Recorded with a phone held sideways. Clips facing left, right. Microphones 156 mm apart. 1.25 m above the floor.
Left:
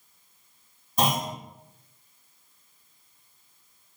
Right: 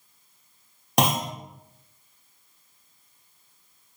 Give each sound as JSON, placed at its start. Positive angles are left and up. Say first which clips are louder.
{"t": 1.0, "sound": "a clunk", "louder": "right 2 dB", "side_deg": -80, "distance_m": 0.6}